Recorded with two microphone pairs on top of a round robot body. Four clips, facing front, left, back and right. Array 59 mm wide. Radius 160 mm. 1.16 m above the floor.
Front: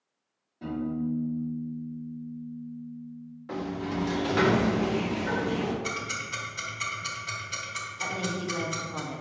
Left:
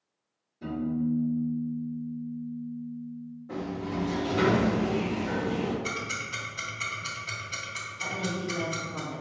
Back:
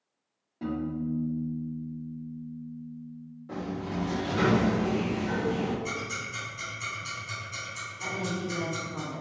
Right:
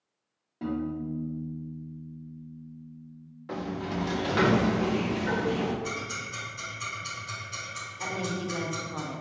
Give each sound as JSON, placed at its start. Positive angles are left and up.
{"t": 0.6, "sound": "a piano", "azimuth_deg": -110, "distance_m": 1.8}
{"t": 3.5, "sound": "a sliding door", "azimuth_deg": -50, "distance_m": 0.7}
{"t": 5.8, "sound": "ticking", "azimuth_deg": 25, "distance_m": 1.4}
{"t": 8.0, "sound": "a woman speaking", "azimuth_deg": -45, "distance_m": 1.0}